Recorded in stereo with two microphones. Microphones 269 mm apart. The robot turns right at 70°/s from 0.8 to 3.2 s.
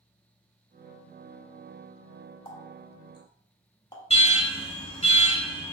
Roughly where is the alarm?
Left.